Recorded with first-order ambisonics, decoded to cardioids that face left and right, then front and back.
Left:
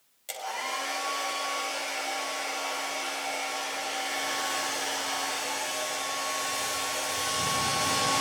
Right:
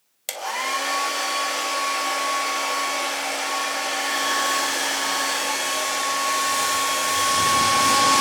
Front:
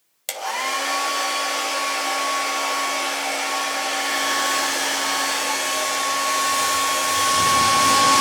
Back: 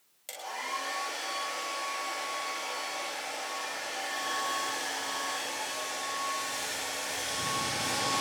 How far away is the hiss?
I don't hear a hiss.